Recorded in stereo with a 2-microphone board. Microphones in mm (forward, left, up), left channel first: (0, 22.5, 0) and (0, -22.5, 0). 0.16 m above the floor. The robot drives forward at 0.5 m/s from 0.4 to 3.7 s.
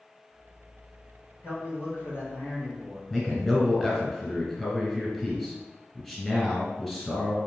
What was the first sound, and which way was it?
A man speaking, 60° left (ahead or behind).